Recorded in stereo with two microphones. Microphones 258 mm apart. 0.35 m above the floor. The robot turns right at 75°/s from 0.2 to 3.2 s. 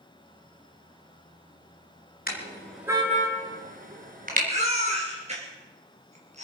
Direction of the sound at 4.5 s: 25° right (ahead or behind).